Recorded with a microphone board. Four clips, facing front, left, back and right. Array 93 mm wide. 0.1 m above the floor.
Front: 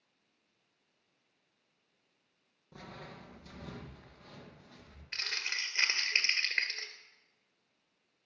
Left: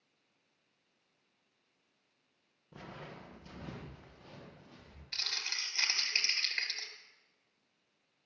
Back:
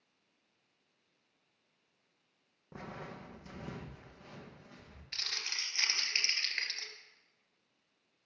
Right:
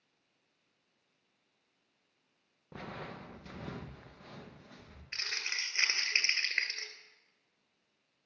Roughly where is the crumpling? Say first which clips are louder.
Right 3 dB, front 5 dB; ahead right.